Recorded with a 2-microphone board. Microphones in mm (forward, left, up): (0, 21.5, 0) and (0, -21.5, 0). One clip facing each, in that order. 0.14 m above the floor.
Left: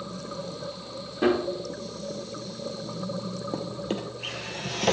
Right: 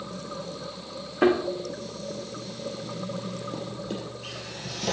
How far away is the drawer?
About 1.2 m.